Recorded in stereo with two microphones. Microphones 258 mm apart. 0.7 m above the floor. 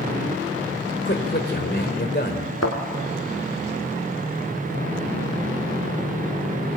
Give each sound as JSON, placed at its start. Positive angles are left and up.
{"t": 1.1, "sound": "a man speaking", "side_deg": 40, "distance_m": 3.0}
{"t": 2.6, "sound": "a thud", "side_deg": 75, "distance_m": 2.5}